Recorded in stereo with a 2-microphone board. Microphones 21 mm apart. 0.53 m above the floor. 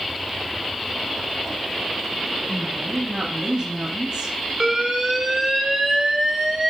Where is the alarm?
20° right (ahead or behind), 2.5 m.